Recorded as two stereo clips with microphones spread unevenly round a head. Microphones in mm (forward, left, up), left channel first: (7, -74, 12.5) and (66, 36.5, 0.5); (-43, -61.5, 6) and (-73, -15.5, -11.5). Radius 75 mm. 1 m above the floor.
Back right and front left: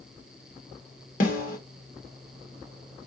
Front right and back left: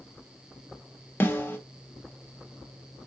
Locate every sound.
1.2 s a snare drum: 115° right, 1.1 m